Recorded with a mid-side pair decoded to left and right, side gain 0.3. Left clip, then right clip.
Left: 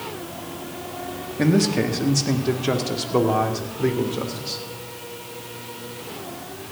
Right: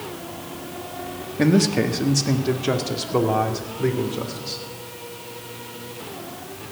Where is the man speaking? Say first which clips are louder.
Right 1 dB; 25° right, 1.4 m; by 4.6 s 10° left, 3 m.